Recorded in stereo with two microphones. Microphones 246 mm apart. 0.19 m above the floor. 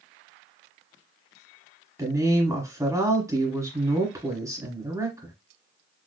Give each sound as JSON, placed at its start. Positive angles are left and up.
{"t": 2.0, "sound": "a woman speaking", "side_deg": -15, "distance_m": 1.2}